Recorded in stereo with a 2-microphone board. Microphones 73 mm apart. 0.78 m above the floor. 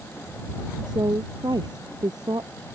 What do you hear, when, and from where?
0.9 s a woman speaking: 70° right (ahead or behind); by 2.5 s 65° right (ahead or behind)